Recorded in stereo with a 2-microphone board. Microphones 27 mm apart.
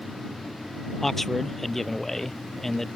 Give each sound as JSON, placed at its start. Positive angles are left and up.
{"t": 1.0, "sound": "a man speaking", "side_deg": 5}